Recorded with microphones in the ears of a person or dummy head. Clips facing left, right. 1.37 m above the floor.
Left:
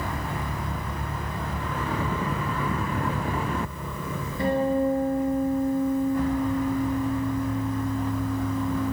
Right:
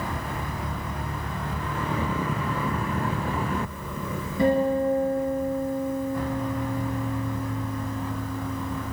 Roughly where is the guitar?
Right.